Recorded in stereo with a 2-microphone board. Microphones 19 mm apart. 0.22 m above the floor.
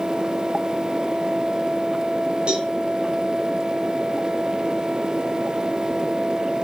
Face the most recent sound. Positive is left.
turn(degrees=-70)  # may be behind; listen again after turning